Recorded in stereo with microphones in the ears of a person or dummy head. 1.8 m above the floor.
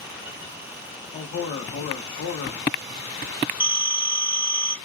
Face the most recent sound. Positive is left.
turn(degrees=-5)  # may be behind; listen again after turning